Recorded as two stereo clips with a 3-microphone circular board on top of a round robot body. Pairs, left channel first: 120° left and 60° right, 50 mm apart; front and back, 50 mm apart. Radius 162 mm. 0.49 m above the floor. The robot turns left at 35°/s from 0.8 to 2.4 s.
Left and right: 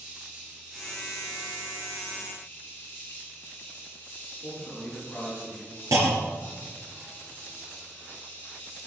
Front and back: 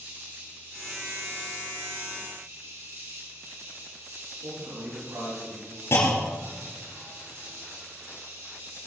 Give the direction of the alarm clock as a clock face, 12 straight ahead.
No alarm clock in this recording.